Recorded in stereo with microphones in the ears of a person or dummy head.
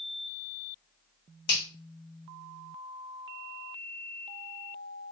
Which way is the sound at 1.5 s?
80° left.